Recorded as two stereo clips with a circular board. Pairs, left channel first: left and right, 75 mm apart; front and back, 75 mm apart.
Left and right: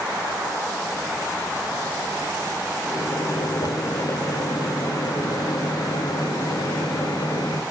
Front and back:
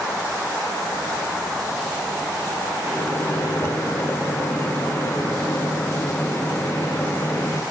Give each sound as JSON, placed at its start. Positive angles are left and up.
{"t": 2.9, "sound": "a microwave", "azimuth_deg": 60, "distance_m": 0.9}